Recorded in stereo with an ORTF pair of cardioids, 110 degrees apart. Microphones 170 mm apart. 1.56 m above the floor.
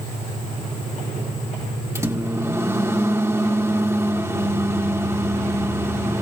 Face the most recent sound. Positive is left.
turn(degrees=-20)